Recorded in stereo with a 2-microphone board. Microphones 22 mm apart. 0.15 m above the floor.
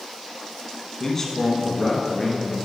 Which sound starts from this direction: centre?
A man speaking, at 1.0 s.